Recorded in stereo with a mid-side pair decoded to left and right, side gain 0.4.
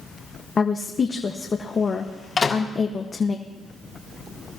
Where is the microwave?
45° left, 2.5 m.